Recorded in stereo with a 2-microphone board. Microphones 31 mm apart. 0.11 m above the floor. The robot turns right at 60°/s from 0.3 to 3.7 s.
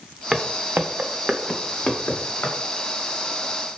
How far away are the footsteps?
About 0.6 m.